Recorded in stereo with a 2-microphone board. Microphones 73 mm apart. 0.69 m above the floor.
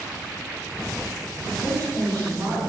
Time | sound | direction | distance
1.5 | a woman speaking | 45° right (ahead or behind) | 8 m